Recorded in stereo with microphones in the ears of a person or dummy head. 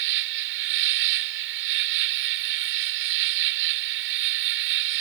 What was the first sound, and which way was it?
An insect, 65° right (ahead or behind).